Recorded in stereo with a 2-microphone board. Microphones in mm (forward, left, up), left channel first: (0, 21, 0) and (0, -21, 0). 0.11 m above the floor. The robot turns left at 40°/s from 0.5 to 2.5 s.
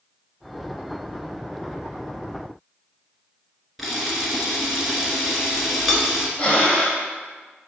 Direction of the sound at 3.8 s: 5° right (ahead or behind).